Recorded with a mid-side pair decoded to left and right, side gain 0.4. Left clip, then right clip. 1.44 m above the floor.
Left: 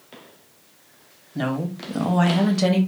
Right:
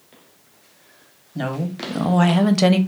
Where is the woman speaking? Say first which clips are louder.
Even; straight ahead, 0.8 m; by 2.8 s 65° right, 0.6 m.